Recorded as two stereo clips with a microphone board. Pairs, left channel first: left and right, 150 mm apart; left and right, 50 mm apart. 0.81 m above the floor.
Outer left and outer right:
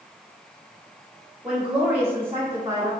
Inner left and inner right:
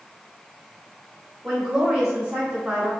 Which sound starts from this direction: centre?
A woman speaking, at 1.4 s.